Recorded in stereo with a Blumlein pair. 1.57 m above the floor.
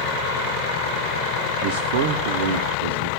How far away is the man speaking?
About 0.8 m.